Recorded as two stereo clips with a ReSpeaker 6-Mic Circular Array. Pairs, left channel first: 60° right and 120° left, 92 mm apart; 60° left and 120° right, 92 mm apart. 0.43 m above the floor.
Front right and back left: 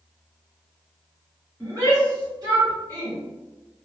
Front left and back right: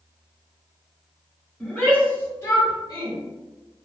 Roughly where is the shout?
Behind left.